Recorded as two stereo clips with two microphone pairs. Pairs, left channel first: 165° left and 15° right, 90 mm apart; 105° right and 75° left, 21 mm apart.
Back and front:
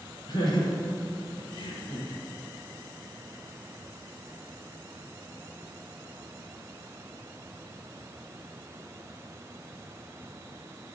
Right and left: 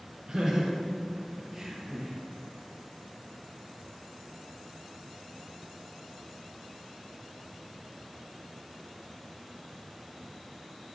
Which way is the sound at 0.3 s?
130° left.